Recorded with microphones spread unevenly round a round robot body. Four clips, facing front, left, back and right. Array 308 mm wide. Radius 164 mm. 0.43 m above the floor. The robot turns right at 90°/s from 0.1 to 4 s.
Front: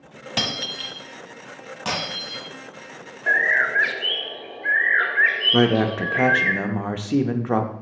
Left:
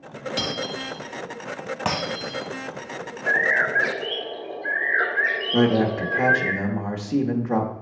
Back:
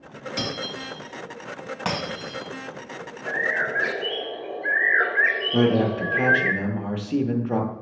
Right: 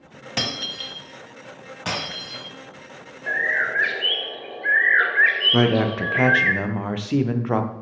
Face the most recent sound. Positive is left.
turn(degrees=-10)